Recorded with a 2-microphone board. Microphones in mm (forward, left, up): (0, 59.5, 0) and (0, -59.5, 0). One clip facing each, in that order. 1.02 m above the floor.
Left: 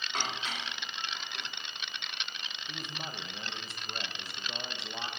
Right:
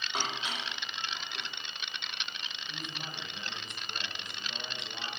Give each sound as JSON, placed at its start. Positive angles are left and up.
{"t": 0.1, "sound": "dishes clattering", "side_deg": -10, "distance_m": 1.7}
{"t": 2.7, "sound": "a man speaking", "side_deg": 35, "distance_m": 1.2}